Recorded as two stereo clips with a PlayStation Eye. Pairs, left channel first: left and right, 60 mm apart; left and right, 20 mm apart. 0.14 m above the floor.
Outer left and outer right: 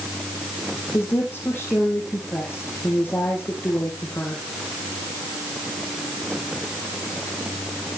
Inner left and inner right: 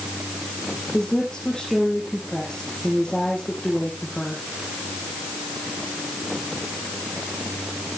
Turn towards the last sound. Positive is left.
turn(degrees=30)  # may be behind; listen again after turning